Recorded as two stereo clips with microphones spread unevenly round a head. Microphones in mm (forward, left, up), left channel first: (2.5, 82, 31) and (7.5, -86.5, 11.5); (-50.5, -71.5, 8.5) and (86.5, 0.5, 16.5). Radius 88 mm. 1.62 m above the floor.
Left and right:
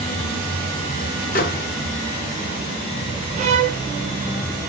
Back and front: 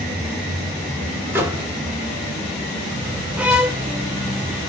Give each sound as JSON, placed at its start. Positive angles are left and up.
{"t": 1.3, "sound": "a microwave", "azimuth_deg": 100, "distance_m": 0.6}
{"t": 3.4, "sound": "a violin", "azimuth_deg": -50, "distance_m": 0.6}